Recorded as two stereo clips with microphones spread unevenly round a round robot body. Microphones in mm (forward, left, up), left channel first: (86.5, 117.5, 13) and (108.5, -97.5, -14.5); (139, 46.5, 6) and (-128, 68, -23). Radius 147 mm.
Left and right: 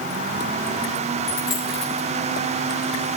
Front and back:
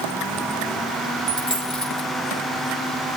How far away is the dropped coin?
About 6 m.